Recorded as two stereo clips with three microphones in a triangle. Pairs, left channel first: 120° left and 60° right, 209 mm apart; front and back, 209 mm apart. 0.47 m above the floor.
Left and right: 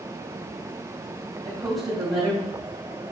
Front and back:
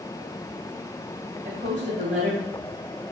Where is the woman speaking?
130° right, 3 m.